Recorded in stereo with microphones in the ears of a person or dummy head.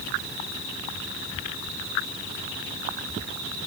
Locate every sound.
Only background noise.